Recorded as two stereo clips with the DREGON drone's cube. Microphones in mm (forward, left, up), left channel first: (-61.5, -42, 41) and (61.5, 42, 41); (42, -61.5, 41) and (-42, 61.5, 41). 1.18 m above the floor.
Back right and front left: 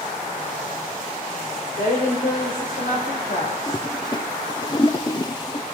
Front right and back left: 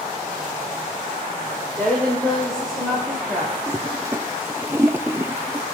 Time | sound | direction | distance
1.8 | a woman speaking | 135° right | 3 m
3.7 | a toilet flushing | 175° right | 0.6 m